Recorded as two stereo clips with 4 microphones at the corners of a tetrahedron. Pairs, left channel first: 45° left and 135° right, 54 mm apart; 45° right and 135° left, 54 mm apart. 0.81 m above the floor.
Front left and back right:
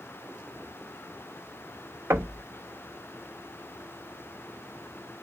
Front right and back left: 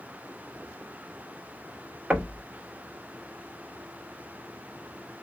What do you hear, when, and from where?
2.1 s knocking: 155° right, 0.9 m